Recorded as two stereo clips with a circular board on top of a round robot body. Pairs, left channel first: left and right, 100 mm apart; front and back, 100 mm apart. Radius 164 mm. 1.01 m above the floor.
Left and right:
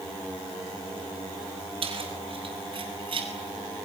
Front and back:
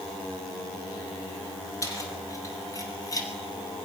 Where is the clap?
I don't hear a clap.